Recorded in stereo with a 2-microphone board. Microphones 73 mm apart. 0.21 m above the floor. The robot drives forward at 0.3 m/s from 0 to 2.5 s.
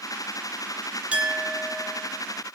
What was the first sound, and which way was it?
A clink, 15° right (ahead or behind).